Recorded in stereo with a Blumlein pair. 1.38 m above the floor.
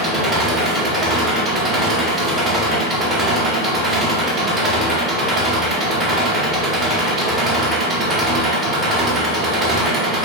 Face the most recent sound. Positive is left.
turn(degrees=-15)